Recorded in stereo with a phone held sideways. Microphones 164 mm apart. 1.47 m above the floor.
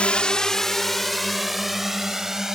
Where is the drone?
5° left (ahead or behind); by 2.6 s 5° right (ahead or behind).